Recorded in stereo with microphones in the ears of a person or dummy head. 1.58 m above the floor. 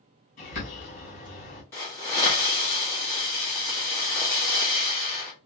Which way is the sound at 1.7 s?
10° left (ahead or behind).